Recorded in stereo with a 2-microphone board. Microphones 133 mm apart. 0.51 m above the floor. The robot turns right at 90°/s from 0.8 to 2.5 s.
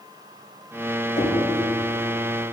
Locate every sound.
1.2 s knocking: 65° left (ahead or behind), 2 m; by 1.4 s 55° left (ahead or behind), 2 m